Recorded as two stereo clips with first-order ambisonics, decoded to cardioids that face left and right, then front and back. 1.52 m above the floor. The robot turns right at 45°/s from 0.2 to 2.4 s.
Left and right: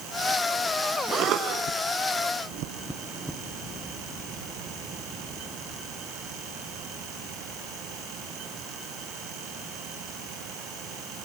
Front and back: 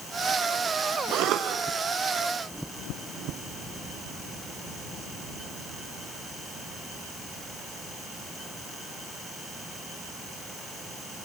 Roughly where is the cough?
Behind right.